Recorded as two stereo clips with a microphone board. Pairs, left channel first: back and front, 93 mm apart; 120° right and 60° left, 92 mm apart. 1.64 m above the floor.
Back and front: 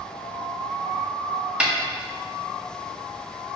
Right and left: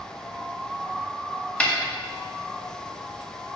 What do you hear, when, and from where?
1.6 s a snare drum: 60° right, 1.0 m